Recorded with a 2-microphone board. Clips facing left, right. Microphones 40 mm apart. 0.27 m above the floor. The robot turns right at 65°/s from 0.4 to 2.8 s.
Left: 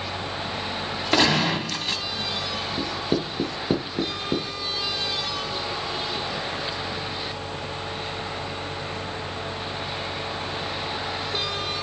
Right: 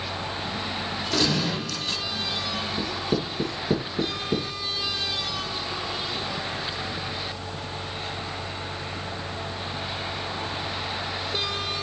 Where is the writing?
30° left (ahead or behind), 2 m.